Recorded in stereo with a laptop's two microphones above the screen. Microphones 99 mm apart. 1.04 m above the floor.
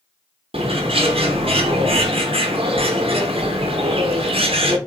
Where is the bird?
75° right (ahead or behind), 0.8 m.